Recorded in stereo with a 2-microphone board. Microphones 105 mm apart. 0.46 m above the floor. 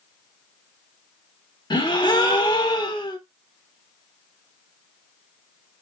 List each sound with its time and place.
1.7 s a gasp: 45° left (ahead or behind), 1.0 m